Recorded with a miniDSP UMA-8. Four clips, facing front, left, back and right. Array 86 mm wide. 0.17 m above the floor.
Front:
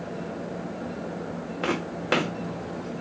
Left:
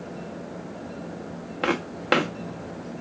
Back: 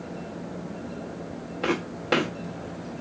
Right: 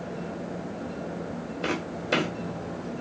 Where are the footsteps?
80° left, 0.7 m.